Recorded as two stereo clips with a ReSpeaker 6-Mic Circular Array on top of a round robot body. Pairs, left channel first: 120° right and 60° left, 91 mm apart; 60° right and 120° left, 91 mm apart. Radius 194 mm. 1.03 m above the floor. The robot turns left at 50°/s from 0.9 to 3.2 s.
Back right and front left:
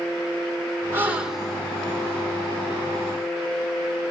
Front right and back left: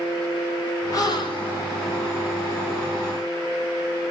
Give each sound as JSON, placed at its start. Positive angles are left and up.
{"t": 0.9, "sound": "a gasp", "azimuth_deg": -5, "distance_m": 1.5}